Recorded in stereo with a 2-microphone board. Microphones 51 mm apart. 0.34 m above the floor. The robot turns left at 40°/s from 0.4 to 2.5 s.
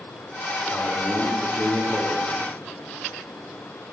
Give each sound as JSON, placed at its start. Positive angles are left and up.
{"t": 0.7, "sound": "a man speaking", "azimuth_deg": 0, "distance_m": 4.0}